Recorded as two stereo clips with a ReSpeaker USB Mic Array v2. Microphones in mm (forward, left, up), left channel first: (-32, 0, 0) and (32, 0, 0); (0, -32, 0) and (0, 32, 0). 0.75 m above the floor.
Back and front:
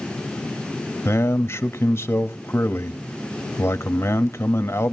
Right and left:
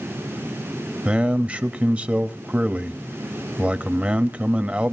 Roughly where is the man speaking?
Behind left.